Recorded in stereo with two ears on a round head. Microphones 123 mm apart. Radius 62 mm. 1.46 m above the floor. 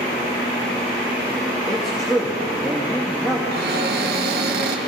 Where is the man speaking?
Centre (ahead or behind), 2.5 m.